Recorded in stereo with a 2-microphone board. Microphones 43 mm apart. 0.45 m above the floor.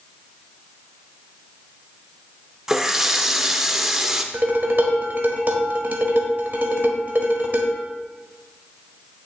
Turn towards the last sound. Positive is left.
turn(degrees=-45)  # may be behind; listen again after turning